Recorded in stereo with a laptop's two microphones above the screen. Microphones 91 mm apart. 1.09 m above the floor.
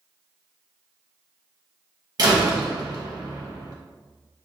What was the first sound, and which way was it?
A door slam, 45° right (ahead or behind).